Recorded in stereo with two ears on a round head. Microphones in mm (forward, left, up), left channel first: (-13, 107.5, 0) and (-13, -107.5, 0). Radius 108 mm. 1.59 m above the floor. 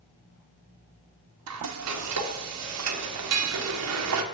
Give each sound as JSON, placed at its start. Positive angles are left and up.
{"t": 1.5, "sound": "frying", "side_deg": -70, "distance_m": 1.0}